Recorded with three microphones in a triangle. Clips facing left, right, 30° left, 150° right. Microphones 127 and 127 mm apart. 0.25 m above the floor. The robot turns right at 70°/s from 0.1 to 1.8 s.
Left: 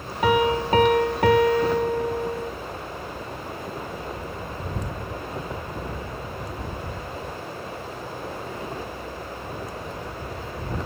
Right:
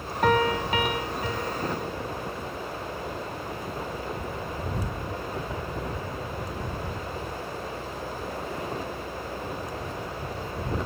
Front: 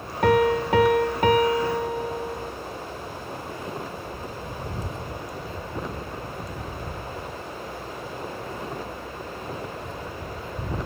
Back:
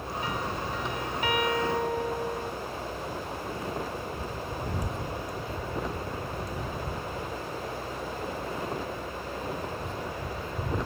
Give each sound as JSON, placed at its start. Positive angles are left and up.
{"t": 0.2, "sound": "a piano", "azimuth_deg": 5}